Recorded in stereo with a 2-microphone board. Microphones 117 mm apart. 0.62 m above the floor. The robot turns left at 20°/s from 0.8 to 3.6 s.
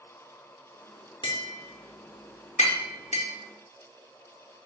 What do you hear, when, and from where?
1.2 s tapping: 40° left (ahead or behind), 0.6 m; by 3.3 s 80° left, 0.6 m